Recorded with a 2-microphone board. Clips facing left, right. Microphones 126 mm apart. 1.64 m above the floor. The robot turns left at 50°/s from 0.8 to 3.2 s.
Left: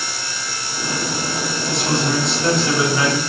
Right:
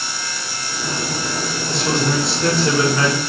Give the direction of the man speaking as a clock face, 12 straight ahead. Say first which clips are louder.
Even; 2 o'clock.